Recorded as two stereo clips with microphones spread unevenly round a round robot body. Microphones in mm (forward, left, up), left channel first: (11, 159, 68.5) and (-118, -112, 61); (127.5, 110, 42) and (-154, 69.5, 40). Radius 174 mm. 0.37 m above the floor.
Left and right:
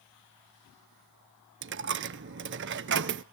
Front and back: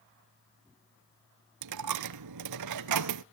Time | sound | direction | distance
1.6 | a dropped coin | 165° right | 0.5 m